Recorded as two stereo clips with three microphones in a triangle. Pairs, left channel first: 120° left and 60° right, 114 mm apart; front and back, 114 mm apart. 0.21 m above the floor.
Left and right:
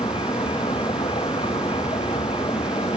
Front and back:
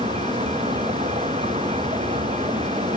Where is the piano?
I don't hear a piano.